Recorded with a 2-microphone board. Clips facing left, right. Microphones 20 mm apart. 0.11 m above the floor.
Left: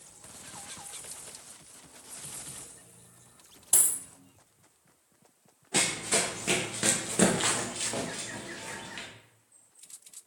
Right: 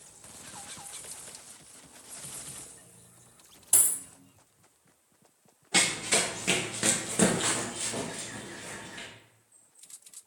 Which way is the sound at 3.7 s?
10° left (ahead or behind).